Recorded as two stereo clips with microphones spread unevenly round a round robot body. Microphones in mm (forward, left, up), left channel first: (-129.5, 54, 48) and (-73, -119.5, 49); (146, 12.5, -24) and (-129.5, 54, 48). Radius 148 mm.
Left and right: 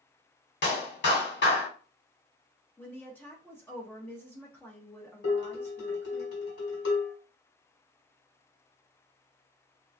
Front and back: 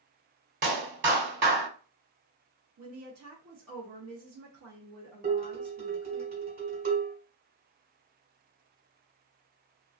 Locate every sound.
0.6 s a clap: 120° left, 1.6 m
2.8 s a woman speaking: straight behind, 0.8 m
5.2 s dishes clattering: 110° left, 1.6 m